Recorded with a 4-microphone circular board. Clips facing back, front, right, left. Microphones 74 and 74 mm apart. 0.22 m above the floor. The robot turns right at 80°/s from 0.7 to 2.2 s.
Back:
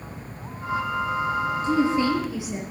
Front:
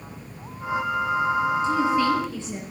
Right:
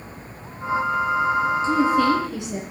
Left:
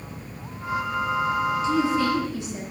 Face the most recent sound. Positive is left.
turn(degrees=-100)